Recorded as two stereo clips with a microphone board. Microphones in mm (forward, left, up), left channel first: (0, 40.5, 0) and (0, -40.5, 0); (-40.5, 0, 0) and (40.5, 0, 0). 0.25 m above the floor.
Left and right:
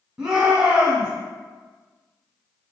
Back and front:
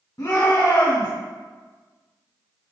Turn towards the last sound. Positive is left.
turn(degrees=-165)